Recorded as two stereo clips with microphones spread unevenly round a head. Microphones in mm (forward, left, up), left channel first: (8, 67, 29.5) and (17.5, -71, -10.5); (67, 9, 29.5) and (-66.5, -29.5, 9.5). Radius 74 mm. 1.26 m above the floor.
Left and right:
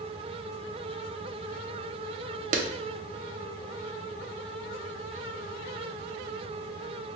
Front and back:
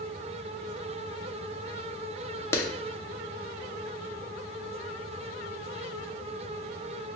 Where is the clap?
55° right, 0.7 m.